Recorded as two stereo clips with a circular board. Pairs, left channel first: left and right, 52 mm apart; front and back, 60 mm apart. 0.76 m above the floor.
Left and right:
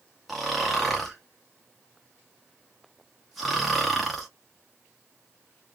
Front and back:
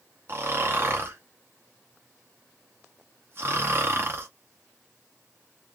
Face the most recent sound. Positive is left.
turn(degrees=180)